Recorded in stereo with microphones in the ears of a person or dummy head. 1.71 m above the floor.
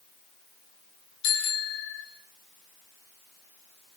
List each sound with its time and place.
1.2 s a bicycle bell: 60° left (ahead or behind), 4 m